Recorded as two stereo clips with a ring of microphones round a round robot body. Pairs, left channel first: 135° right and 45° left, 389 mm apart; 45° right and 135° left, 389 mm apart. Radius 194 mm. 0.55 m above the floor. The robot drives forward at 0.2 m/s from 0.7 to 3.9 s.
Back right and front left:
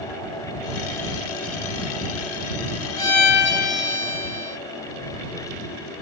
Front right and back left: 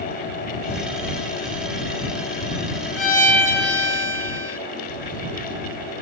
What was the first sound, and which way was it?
A violin, 135° right.